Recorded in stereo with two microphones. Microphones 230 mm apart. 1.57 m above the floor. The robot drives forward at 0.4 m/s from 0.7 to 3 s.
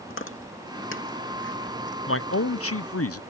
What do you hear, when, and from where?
0.1 s chewing: 65° left (ahead or behind); by 2.0 s 55° left (ahead or behind)
2.1 s a man speaking: 70° left (ahead or behind); by 3.2 s 85° left